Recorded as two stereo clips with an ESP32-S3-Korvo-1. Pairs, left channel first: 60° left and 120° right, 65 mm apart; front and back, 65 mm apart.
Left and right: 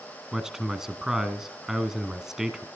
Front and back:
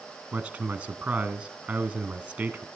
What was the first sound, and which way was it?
A man speaking, 170° left.